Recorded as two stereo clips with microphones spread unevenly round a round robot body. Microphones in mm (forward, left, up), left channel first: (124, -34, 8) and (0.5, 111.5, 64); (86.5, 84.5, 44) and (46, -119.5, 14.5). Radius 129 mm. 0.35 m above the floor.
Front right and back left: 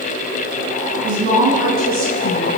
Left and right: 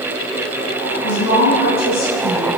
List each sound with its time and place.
1.0 s a woman speaking: 100° left, 5 m; by 2.5 s 125° left, 5 m